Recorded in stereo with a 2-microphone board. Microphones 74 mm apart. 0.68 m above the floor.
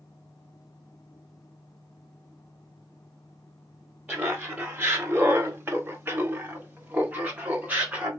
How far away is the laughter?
About 0.9 m.